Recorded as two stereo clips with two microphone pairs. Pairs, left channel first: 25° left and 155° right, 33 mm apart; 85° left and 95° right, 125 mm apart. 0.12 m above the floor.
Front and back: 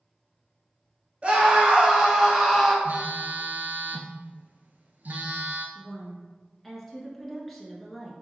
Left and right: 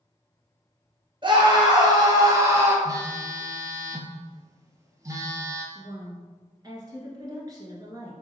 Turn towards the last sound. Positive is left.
turn(degrees=-60)